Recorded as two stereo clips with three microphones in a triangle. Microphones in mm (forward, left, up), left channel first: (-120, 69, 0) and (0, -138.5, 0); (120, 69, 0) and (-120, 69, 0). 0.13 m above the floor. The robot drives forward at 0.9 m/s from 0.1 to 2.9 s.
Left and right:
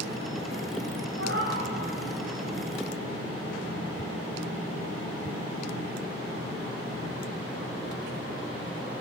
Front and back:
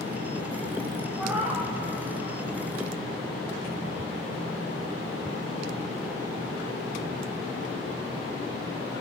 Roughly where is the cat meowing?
Right.